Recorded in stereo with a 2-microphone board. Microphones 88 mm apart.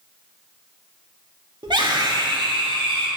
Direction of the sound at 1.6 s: 55° right (ahead or behind).